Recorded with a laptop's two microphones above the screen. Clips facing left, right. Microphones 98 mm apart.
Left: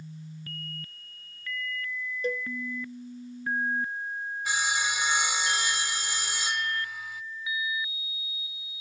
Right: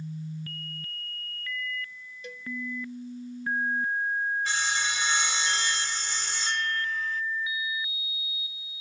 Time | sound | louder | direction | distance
2.2 | a cowbell | left 13 dB | 40° left (ahead or behind) | ?
4.5 | sawing | even | 10° left (ahead or behind) | ?